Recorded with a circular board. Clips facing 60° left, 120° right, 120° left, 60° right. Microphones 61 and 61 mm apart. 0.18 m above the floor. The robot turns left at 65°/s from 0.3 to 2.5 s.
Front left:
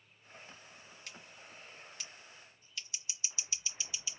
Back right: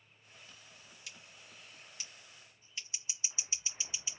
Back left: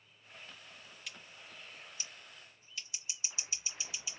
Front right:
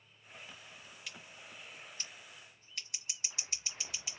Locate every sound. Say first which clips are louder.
1.1 s scissors: front left 2 dB, front right 1 dB; 30° left, 3 m; by 4.2 s 60° right, 3 m